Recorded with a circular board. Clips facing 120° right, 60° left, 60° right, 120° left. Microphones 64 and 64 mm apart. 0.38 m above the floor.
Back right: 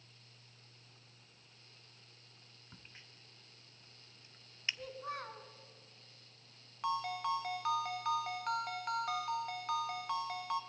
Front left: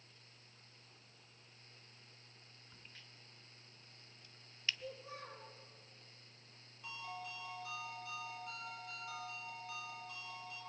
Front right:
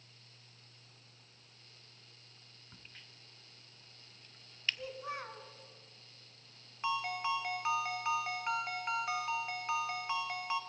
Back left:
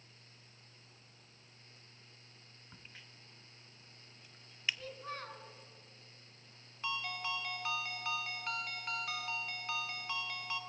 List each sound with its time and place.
2.7 s a crack: 170° right, 0.9 m
4.8 s a child speaking: 135° right, 3.5 m
6.8 s a ringtone: 130° right, 1.6 m